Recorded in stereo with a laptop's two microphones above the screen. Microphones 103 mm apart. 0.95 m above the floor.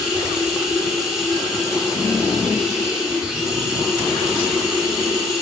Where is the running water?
5° right (ahead or behind), 3 m.